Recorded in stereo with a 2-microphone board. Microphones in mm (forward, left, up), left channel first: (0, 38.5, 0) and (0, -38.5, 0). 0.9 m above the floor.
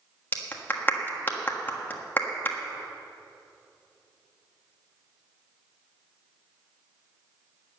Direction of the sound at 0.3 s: 25° left (ahead or behind).